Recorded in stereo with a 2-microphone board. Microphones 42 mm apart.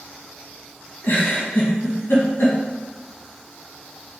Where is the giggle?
75° left (ahead or behind), 1.4 m.